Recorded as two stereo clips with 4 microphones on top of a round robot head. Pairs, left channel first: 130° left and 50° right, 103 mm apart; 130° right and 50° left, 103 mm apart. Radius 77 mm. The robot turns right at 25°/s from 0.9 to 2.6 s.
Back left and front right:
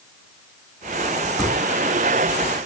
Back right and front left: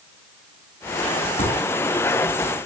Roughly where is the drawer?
Behind right.